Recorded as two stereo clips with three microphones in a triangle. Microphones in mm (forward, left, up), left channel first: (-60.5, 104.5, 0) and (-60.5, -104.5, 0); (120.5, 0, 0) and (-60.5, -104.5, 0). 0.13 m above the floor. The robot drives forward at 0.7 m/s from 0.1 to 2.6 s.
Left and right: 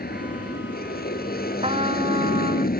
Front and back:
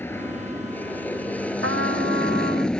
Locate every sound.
0.0 s an aircraft: 105° left; by 2.8 s 115° left
1.6 s a trumpet: 150° right